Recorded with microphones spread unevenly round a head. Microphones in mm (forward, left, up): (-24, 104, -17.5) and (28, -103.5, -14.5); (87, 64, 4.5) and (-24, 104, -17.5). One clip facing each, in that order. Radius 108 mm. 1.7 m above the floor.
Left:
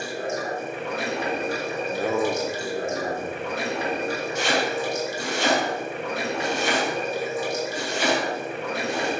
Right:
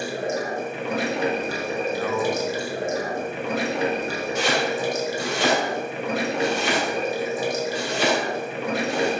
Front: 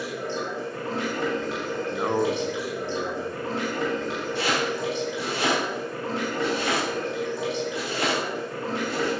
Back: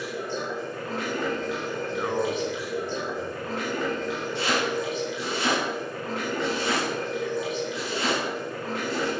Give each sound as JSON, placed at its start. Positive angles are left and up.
{"t": 0.0, "sound": "running water", "azimuth_deg": -85, "distance_m": 2.0}
{"t": 1.9, "sound": "a man speaking", "azimuth_deg": 40, "distance_m": 1.1}
{"t": 4.3, "sound": "chopping", "azimuth_deg": -65, "distance_m": 3.5}